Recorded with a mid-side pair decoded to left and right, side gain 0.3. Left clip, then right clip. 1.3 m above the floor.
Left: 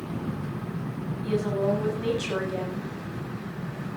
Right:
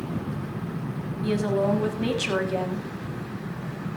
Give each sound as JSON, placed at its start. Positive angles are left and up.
{"t": 1.2, "sound": "a woman speaking", "azimuth_deg": -60, "distance_m": 7.0}